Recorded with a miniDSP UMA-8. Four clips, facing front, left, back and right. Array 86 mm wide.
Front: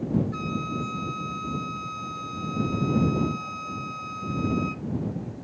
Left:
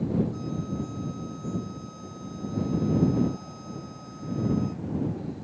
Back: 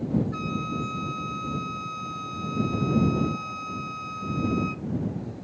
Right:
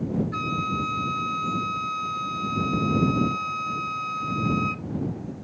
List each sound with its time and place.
0.3 s a flute: 90° right